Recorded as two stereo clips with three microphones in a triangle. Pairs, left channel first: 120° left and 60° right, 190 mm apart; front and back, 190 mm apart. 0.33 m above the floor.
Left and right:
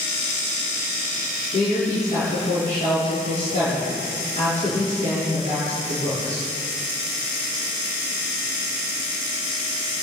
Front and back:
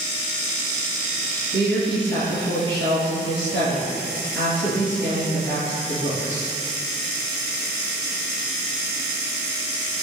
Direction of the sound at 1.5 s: 170° left.